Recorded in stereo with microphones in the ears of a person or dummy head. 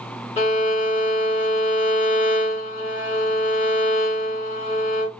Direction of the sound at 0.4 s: 30° left (ahead or behind).